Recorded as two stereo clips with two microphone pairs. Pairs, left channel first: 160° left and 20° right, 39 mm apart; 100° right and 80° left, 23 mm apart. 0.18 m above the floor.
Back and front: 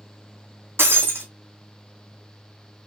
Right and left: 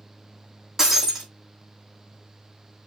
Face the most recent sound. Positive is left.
turn(degrees=10)